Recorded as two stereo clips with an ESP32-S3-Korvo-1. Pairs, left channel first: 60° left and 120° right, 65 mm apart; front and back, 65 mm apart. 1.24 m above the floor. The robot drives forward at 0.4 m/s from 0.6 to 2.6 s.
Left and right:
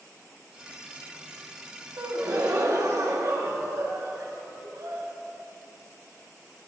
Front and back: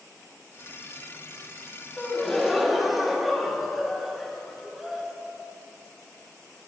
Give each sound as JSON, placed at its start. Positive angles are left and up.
{"t": 2.0, "sound": "a gasp", "azimuth_deg": -80, "distance_m": 1.5}